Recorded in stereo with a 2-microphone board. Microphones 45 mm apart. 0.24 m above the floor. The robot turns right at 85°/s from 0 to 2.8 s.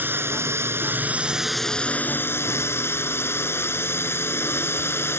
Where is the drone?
130° right; by 5.2 s 110° left.